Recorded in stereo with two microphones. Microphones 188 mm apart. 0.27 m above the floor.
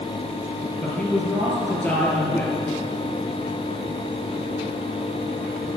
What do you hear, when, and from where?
0.8 s a man speaking: 10° left (ahead or behind), 5 m